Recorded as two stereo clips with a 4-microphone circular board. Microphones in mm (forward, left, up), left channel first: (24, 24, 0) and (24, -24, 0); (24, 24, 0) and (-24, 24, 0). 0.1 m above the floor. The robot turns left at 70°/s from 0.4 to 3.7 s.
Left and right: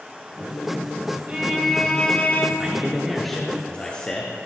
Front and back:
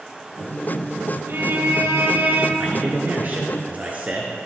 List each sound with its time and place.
1.3 s a violin: 150° right, 1.7 m; by 2.5 s 125° left, 1.7 m
2.6 s a man speaking: 135° right, 1.7 m; by 4.4 s 145° left, 1.7 m